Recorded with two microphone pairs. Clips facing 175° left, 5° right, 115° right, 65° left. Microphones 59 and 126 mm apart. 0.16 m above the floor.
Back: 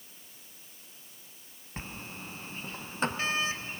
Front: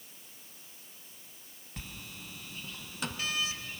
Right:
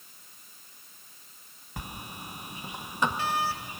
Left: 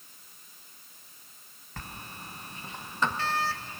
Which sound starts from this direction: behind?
A sliding door, at 1.8 s.